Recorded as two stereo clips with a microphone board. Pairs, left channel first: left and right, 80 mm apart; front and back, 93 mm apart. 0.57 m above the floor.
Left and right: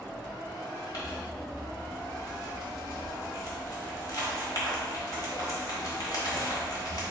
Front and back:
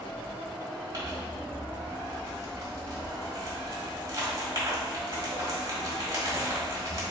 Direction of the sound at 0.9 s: 125° left.